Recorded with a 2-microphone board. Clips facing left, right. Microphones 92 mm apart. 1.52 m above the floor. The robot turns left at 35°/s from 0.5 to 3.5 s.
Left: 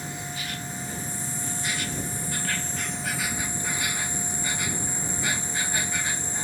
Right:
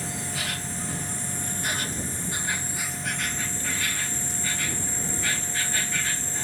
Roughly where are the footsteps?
I don't hear footsteps.